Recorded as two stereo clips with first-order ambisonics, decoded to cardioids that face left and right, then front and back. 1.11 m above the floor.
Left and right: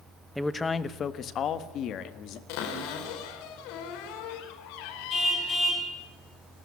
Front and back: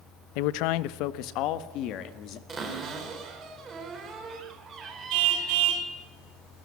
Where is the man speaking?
Straight ahead, 0.8 m; by 2.4 s 45° left, 2 m.